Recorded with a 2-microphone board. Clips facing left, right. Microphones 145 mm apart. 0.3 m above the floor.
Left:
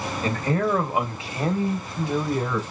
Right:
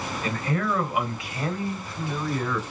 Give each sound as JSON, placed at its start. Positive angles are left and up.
{"t": 0.2, "sound": "a man speaking", "side_deg": 35, "distance_m": 1.0}